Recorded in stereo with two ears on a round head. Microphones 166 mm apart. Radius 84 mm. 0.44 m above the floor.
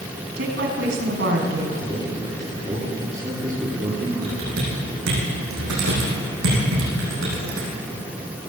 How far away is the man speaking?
About 9.5 m.